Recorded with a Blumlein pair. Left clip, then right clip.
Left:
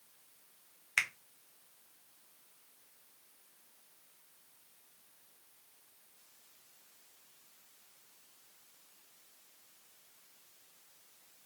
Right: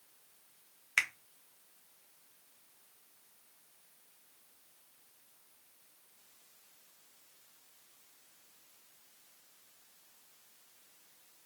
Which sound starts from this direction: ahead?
A finger snap, at 1.0 s.